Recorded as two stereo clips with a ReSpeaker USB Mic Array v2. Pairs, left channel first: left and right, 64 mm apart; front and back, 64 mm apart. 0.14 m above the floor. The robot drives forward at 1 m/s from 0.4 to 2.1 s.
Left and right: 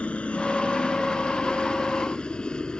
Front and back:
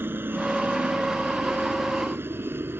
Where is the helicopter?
150° left; by 2.8 s 160° left.